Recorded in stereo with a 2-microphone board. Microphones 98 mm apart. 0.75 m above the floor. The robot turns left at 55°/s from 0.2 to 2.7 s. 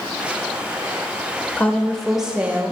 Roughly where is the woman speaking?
Ahead left.